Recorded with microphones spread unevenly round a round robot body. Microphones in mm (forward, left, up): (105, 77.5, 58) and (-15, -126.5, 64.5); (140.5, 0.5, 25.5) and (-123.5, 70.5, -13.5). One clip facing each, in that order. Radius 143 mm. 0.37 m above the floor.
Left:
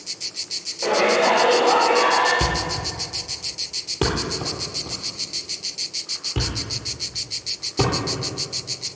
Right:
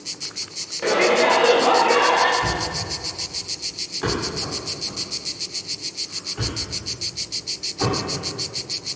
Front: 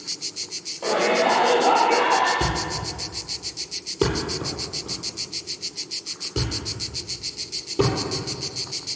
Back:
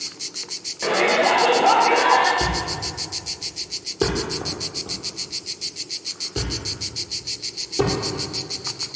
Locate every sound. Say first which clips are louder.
0.8 s a shout: right 1 dB, back 1 dB; 175° left, 1.4 m; by 2.3 s 160° right, 2.5 m
2.4 s a thud: left 1 dB, even; 65° left, 4 m